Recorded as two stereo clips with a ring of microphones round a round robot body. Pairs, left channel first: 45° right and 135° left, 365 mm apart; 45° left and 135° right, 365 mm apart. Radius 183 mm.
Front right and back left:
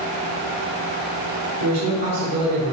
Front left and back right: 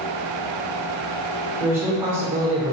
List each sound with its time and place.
1.6 s a man speaking: 140° left, 1.6 m; by 2.7 s 170° right, 1.3 m